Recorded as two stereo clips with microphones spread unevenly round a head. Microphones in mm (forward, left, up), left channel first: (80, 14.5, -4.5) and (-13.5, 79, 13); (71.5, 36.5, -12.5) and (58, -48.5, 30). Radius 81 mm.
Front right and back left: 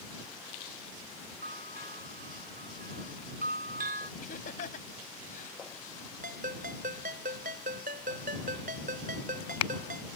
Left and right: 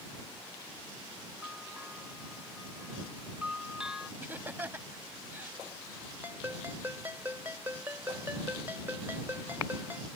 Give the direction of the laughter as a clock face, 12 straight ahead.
1 o'clock.